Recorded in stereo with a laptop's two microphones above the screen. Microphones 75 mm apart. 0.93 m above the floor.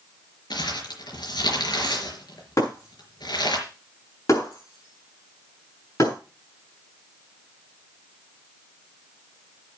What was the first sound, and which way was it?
Crumpling, 75° left (ahead or behind).